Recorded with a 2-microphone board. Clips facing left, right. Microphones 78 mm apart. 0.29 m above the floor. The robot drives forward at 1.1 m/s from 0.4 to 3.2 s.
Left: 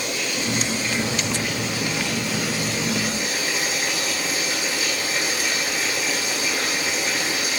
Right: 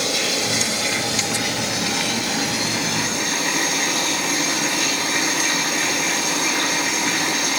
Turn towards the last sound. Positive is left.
turn(degrees=-60)  # may be behind; listen again after turning